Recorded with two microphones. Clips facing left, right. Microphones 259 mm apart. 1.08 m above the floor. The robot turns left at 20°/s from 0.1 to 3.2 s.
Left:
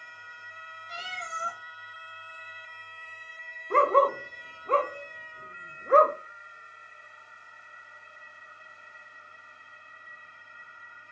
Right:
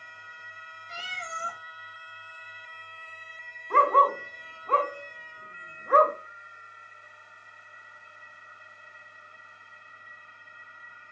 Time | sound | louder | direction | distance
0.9 | a cat meowing | even | 30° right (ahead or behind) | 0.6 m
3.7 | a dog barking | left 3 dB | 25° left (ahead or behind) | 0.6 m